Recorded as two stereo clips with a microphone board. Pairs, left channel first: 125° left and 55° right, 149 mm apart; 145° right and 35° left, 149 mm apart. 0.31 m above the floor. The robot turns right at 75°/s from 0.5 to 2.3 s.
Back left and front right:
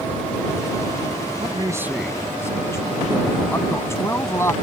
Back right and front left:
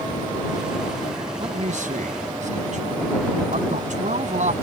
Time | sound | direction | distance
1.4 | a man speaking | 15° right | ?